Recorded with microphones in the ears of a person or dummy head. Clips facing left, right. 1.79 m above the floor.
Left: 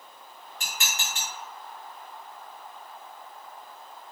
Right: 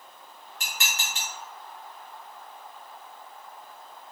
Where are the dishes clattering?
50° right (ahead or behind), 2.5 m.